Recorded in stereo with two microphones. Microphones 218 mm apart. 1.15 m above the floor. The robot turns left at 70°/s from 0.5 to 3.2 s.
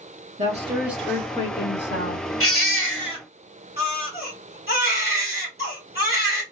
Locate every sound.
0.4 s a woman speaking: 145° right, 1.5 m; by 2.2 s 90° left, 1.5 m
2.4 s a baby crying: 100° left, 2.0 m; by 6.4 s 45° left, 2.0 m